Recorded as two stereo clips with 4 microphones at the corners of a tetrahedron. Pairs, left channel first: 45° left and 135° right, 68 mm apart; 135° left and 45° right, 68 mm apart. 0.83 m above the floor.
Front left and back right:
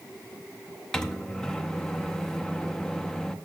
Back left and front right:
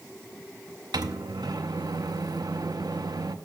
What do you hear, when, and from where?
0.9 s a microwave: 35° right, 0.6 m